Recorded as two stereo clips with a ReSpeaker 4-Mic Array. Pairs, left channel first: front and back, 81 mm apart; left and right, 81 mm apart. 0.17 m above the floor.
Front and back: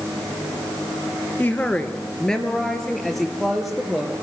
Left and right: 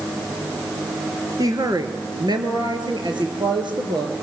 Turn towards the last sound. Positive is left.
turn(degrees=-95)